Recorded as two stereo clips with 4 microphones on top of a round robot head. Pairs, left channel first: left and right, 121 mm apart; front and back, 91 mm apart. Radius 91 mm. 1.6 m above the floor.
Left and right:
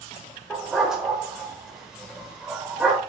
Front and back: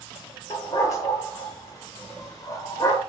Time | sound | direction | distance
0.5 | a dog barking | 10° right | 1.4 m